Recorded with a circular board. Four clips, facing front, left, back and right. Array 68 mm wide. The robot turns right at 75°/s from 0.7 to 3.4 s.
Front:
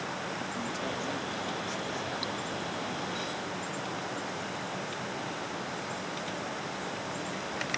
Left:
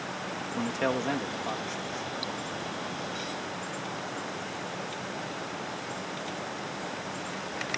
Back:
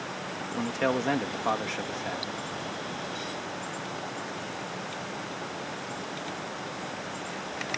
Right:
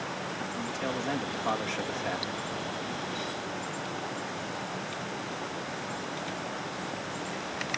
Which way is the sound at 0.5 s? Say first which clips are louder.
Left 7 dB, back 7 dB; 140° left.